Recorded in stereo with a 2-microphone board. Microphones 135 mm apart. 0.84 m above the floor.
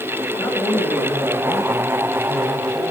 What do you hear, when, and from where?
0.4 s a woman speaking: 10° left (ahead or behind), 5.5 m; by 2.8 s centre (ahead or behind), 7.5 m